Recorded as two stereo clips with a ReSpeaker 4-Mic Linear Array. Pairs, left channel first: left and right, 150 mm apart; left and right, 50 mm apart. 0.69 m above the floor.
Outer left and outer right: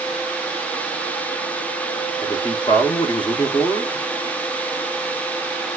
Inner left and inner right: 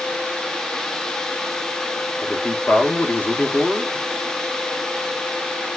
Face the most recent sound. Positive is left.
turn(degrees=30)  # may be behind; listen again after turning